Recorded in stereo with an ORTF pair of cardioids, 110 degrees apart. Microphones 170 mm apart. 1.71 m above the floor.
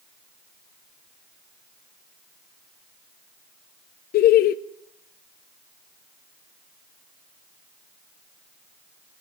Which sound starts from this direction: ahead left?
Laughter, at 4.1 s.